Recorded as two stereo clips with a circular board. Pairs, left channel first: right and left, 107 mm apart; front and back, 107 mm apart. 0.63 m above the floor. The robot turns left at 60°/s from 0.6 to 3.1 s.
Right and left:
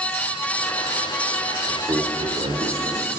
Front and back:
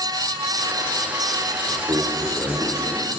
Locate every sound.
1.7 s a man speaking: 150° left, 1.4 m; by 3.1 s 65° left, 1.4 m